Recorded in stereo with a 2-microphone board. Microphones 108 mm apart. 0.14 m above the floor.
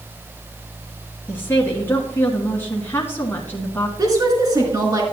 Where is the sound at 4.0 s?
35° right (ahead or behind), 2 m.